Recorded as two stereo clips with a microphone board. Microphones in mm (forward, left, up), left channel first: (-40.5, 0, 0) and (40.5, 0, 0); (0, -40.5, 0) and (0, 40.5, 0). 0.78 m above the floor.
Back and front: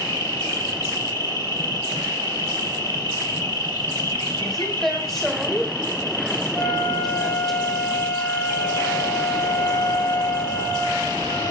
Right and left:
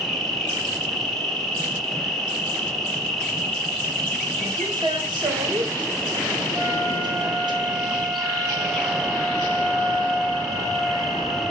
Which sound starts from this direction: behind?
An insect, at 0.0 s.